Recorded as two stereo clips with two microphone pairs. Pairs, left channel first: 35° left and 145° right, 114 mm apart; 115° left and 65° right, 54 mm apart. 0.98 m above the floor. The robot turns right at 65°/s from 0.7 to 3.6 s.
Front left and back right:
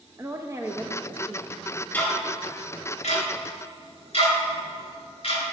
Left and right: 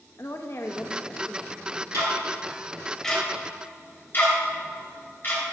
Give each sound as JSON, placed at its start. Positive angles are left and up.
{"t": 0.2, "sound": "a woman speaking", "azimuth_deg": 145, "distance_m": 0.6}
{"t": 1.9, "sound": "ticking", "azimuth_deg": -40, "distance_m": 3.0}